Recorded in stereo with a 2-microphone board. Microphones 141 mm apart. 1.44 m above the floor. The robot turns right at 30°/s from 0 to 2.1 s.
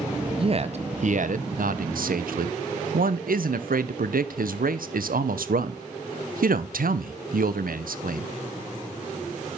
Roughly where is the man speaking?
Behind right.